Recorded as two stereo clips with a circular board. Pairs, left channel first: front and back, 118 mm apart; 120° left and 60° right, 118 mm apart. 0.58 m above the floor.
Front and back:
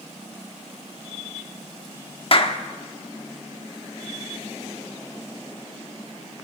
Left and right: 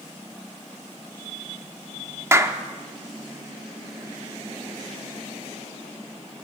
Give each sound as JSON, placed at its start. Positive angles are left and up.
{"t": 2.3, "sound": "a clap", "azimuth_deg": 0, "distance_m": 0.9}